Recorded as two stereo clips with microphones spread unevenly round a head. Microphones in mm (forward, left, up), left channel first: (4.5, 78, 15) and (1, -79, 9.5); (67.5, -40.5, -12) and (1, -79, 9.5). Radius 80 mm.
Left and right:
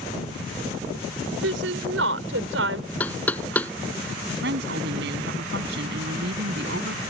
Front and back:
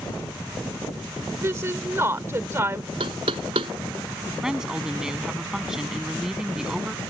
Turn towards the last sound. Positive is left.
turn(degrees=-70)